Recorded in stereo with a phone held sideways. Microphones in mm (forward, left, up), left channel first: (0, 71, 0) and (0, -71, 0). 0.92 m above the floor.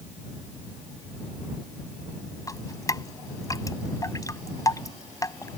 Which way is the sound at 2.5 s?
25° left (ahead or behind).